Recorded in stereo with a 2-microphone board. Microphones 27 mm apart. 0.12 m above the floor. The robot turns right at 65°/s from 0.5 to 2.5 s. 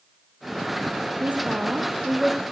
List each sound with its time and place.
1.2 s a woman speaking: 75° right, 3 m; by 2.4 s straight ahead, 3 m